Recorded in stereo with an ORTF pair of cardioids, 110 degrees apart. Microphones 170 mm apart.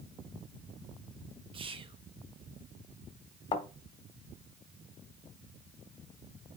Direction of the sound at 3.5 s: 30° left.